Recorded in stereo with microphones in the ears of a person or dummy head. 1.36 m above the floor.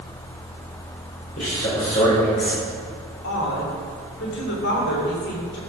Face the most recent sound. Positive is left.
turn(degrees=55)  # may be behind; listen again after turning